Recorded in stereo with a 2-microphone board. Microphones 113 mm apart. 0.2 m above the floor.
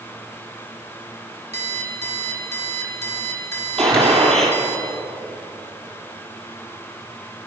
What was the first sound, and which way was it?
An alarm clock, 80° right.